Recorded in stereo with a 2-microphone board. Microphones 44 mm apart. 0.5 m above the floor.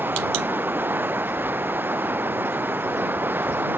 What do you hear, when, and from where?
0.0 s running water: 45° right (ahead or behind)